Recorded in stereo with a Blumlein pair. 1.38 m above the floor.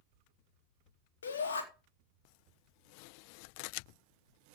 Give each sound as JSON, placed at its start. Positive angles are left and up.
{"t": 1.2, "sound": "a shout", "azimuth_deg": 65, "distance_m": 3.5}